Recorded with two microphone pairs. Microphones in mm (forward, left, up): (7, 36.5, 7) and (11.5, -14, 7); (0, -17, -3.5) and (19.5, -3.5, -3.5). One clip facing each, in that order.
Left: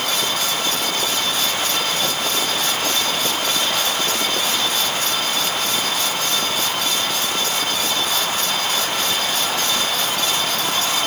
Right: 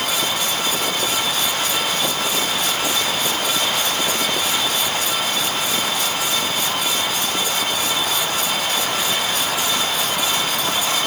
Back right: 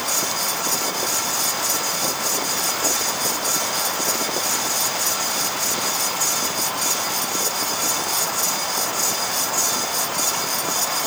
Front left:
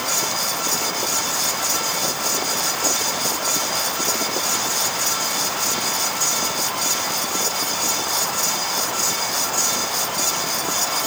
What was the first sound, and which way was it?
Only background noise.